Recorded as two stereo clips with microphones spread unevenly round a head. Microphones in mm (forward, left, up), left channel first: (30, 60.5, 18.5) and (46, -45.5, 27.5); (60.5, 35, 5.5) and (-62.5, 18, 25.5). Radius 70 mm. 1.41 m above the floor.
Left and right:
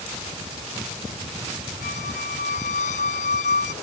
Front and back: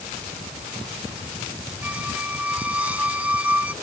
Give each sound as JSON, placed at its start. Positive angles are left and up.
{"t": 1.8, "sound": "a squeak", "azimuth_deg": 110}